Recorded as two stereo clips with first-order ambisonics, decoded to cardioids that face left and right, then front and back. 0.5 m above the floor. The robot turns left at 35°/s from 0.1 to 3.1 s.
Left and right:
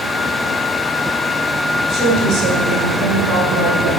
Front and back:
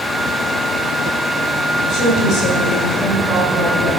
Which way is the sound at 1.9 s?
25° right.